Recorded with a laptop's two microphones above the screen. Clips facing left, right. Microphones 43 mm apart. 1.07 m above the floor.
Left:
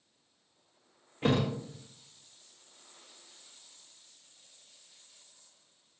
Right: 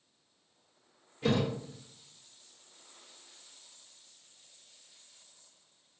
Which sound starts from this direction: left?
A thud, at 1.2 s.